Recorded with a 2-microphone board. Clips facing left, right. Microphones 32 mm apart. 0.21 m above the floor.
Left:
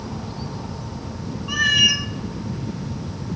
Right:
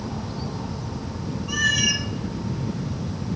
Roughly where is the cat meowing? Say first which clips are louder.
Left 5 dB; left.